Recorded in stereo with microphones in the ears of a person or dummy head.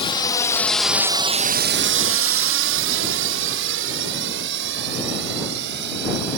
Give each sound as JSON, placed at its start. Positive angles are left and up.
{"t": 0.0, "sound": "a drone", "side_deg": 20}